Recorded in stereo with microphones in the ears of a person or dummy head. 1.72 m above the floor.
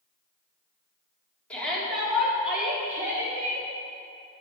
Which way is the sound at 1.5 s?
5° left (ahead or behind).